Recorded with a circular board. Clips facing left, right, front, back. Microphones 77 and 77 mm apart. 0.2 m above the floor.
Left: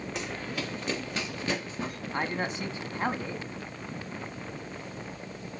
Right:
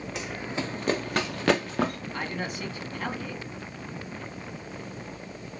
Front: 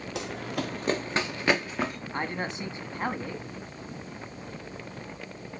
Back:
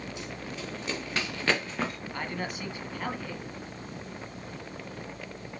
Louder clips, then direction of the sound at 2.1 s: Left 2 dB, front 3 dB; 50° left.